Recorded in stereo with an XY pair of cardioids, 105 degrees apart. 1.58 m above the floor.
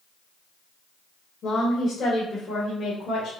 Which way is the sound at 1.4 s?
55° left.